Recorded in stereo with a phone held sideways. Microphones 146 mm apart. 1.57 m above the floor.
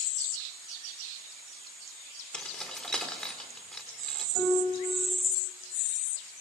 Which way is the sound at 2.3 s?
5° left (ahead or behind).